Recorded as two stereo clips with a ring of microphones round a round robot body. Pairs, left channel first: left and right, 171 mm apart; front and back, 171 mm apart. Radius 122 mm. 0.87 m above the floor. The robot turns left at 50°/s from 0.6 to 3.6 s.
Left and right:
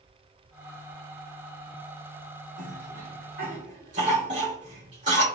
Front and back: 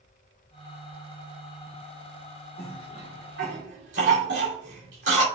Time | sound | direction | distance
2.6 | a cough | 100° right | 2.5 m